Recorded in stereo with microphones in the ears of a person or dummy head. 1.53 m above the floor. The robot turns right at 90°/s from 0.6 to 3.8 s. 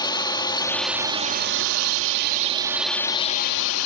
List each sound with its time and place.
0.0 s a drone: 155° left; by 3.9 s 85° left